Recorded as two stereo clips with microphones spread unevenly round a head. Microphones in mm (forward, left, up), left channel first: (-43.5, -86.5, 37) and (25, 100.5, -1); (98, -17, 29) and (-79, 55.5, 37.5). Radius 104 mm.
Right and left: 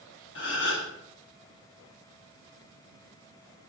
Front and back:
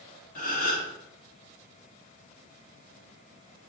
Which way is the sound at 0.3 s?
75° right.